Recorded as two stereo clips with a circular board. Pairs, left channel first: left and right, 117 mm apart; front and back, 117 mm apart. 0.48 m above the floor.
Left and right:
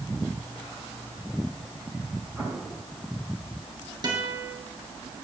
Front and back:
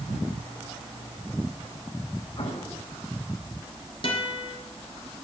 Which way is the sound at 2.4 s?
30° right.